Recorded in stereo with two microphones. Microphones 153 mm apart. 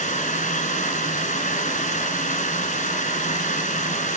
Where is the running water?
55° left (ahead or behind), 1.5 m.